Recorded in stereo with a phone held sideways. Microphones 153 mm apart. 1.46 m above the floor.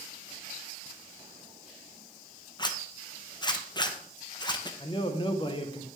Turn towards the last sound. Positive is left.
turn(degrees=35)  # may be behind; listen again after turning